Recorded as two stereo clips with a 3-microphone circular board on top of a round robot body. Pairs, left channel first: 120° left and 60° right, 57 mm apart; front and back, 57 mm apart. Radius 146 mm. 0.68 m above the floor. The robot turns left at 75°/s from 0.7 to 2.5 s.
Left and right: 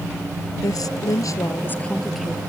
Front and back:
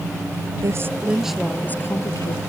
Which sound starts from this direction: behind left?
A woman speaking, at 0.6 s.